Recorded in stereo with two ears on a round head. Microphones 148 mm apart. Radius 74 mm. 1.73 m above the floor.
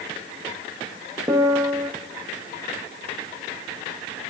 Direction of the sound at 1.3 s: 20° right (ahead or behind).